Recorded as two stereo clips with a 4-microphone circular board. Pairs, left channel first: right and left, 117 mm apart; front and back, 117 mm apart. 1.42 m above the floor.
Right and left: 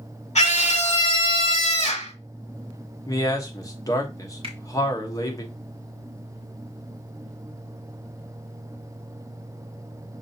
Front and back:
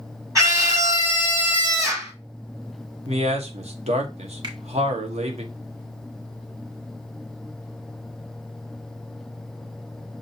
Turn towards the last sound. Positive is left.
turn(degrees=130)